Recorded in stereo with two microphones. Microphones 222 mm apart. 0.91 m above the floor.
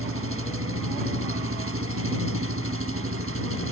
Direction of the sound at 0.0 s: 80° right.